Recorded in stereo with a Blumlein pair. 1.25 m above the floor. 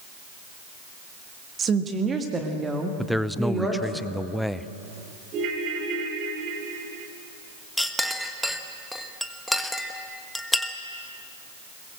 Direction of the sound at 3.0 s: Straight ahead.